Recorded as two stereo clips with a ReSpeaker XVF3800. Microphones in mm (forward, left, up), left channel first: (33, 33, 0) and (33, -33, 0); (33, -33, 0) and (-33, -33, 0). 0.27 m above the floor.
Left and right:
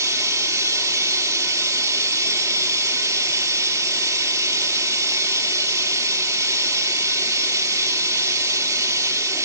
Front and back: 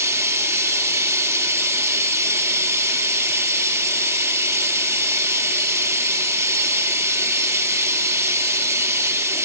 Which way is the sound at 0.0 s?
130° right.